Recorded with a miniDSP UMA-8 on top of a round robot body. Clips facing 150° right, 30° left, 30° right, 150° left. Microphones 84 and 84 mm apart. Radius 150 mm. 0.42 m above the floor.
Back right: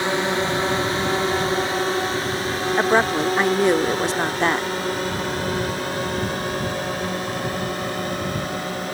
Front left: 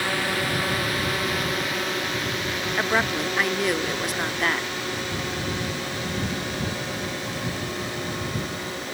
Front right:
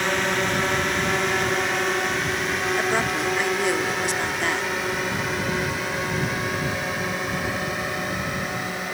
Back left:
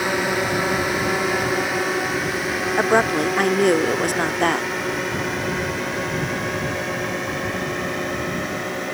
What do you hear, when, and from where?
0.0 s a drone: 135° right; by 8.9 s 115° right
2.8 s a woman speaking: 160° left